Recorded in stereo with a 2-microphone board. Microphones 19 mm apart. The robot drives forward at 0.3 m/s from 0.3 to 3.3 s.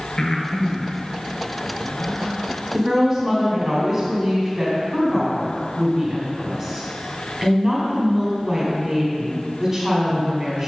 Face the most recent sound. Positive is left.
turn(degrees=-20)  # may be behind; listen again after turning